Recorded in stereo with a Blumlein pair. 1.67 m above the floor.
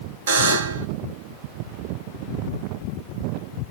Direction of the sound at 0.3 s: 65° right.